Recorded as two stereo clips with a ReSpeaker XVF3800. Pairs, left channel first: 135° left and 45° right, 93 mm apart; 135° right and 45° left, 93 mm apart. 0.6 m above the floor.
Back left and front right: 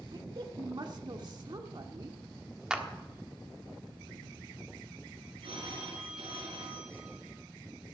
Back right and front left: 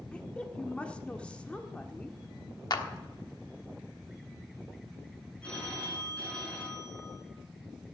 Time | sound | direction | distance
0.1 | a woman speaking | 60° right | 1.4 m
2.7 | a clap | 125° right | 1.3 m
5.4 | a phone ringing | 55° right | 4.5 m